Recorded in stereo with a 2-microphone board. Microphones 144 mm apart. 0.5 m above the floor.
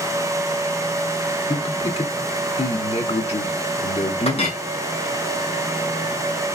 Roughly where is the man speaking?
Left.